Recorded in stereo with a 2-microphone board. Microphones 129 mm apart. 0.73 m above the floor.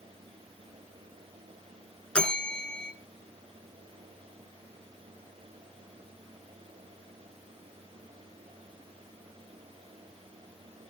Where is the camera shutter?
No camera shutter in this recording.